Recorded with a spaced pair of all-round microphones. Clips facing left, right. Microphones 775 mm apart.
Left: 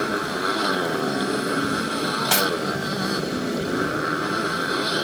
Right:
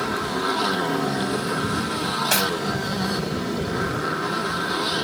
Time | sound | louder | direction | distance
0.0 | a motorcycle | even | 30° right (ahead or behind) | ?
2.3 | cutlery clinking | left 1 dB | 35° left (ahead or behind) | ?